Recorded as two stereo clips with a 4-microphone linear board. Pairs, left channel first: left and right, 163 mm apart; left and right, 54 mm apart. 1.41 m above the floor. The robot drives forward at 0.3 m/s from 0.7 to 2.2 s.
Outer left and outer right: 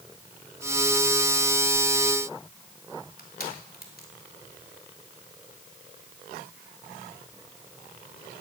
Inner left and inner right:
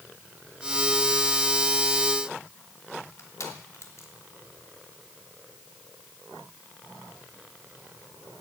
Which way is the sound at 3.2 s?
70° left (ahead or behind).